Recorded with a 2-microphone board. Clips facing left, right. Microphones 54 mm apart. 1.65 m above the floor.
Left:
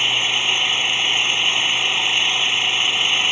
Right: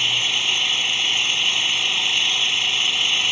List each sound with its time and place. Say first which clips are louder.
0.0 s an engine running: left 2 dB; 20° left (ahead or behind)